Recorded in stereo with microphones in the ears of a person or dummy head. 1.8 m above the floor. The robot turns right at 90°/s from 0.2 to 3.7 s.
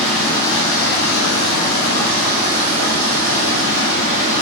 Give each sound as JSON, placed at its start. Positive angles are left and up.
{"t": 0.0, "sound": "running water", "azimuth_deg": 5, "distance_m": 1.0}